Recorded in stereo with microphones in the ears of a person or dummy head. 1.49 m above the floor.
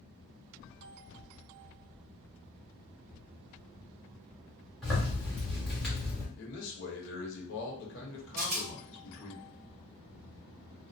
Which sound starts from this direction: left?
A man speaking, at 6.3 s.